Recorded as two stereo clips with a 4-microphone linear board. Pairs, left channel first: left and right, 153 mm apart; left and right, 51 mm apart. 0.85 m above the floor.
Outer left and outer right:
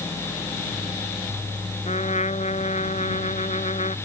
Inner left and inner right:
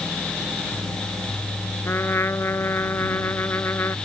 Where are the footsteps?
I don't hear footsteps.